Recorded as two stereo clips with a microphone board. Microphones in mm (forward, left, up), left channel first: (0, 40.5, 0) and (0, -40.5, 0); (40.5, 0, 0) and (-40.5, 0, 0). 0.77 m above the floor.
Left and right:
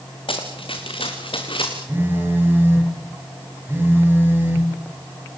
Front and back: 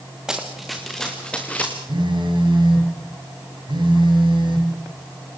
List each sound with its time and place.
0.3 s running footsteps: 100° left, 4 m; by 1.8 s 70° left, 4.5 m
1.9 s a phone buzzing: 155° right, 7 m